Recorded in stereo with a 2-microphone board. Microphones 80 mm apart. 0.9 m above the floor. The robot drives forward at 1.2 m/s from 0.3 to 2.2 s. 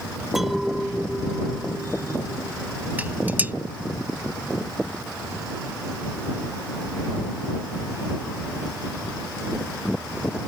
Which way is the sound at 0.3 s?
5° right (ahead or behind).